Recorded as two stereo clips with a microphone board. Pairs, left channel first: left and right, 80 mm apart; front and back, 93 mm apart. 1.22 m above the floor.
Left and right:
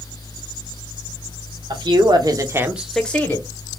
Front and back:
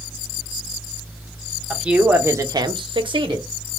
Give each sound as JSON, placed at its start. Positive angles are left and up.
{"t": 1.7, "sound": "a man speaking", "azimuth_deg": -100, "distance_m": 1.0}